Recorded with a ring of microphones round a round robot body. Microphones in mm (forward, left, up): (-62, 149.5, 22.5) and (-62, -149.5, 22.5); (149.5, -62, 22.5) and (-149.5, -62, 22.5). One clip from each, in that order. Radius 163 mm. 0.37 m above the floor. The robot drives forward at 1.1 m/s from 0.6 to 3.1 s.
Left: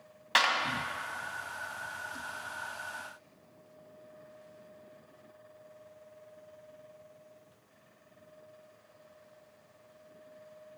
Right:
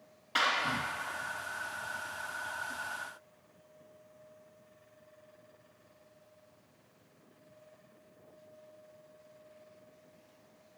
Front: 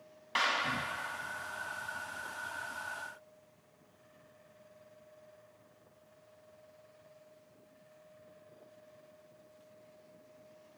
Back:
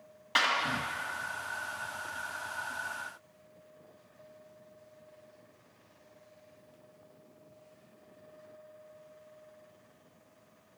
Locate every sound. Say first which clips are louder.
0.3 s a clap: left 3 dB, back 4 dB; 100° left, 1.9 m